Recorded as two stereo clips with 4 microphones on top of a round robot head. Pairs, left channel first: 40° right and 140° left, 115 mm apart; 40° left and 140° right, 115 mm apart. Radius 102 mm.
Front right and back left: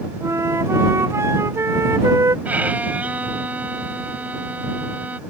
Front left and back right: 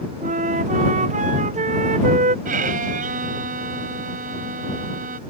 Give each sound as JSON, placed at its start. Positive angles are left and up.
{"t": 0.2, "sound": "a flute", "azimuth_deg": -155}
{"t": 2.5, "sound": "a violin", "azimuth_deg": -145}